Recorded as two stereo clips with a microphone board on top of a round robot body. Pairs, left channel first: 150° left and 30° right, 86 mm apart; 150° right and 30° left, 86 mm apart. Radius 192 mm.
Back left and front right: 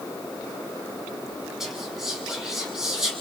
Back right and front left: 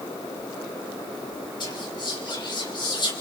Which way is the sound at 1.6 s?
115° right.